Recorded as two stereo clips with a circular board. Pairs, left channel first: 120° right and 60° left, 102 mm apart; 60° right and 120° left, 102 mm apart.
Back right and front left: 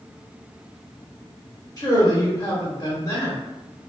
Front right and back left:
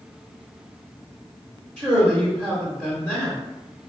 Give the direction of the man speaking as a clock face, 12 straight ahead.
4 o'clock.